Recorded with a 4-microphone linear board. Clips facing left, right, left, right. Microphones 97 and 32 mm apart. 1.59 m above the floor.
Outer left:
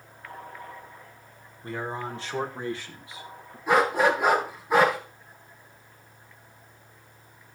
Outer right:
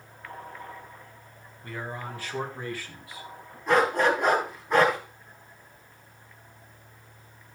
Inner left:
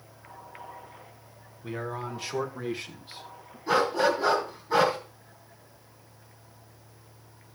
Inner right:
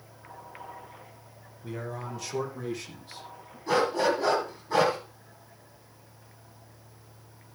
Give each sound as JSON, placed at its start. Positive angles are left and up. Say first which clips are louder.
{"t": 1.6, "sound": "a man speaking", "louder": "outer left 4 dB, inner left 3 dB", "side_deg": 30, "distance_m": 1.8}
{"t": 3.7, "sound": "a dog barking", "louder": "outer left 1 dB, inner left 1 dB", "side_deg": 5, "distance_m": 3.5}